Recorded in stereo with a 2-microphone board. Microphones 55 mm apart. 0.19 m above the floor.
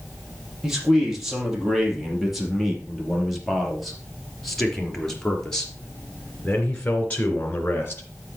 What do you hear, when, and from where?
0.6 s a man speaking: 5° right (ahead or behind), 5.5 m; by 8.0 s 30° left (ahead or behind), 2.5 m